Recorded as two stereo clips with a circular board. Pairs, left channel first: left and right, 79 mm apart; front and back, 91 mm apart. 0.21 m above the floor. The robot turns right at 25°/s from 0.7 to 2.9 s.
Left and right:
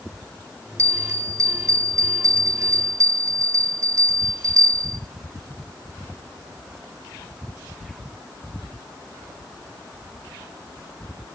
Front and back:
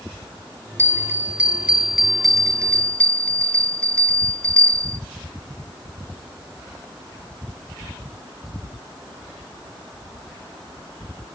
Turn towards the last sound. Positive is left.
turn(degrees=-75)